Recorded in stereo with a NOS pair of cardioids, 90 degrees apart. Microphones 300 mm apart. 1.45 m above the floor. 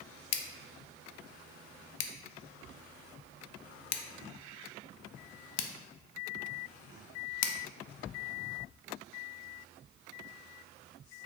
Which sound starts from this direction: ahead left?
Scissors, at 0.3 s.